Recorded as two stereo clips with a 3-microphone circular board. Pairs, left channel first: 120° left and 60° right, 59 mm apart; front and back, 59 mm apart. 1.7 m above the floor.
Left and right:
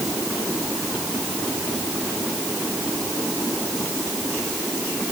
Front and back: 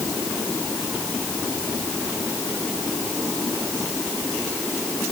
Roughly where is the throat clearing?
No throat clearing in this recording.